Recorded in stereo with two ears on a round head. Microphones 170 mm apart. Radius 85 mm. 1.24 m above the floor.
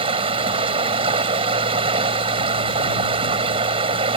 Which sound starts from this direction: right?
Running water, at 0.0 s.